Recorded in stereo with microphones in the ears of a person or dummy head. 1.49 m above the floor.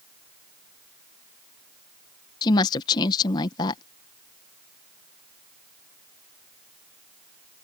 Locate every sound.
2.4 s a woman speaking: 25° left (ahead or behind)